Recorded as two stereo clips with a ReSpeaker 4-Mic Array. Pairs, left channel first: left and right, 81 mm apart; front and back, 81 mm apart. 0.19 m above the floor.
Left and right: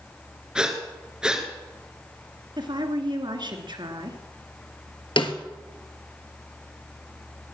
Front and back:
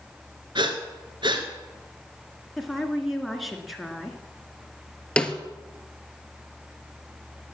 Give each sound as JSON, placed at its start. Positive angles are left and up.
{"t": 0.6, "sound": "breathing", "azimuth_deg": -170, "distance_m": 2.0}
{"t": 2.6, "sound": "a woman speaking", "azimuth_deg": -90, "distance_m": 2.0}
{"t": 5.2, "sound": "a snare drum", "azimuth_deg": 80, "distance_m": 1.4}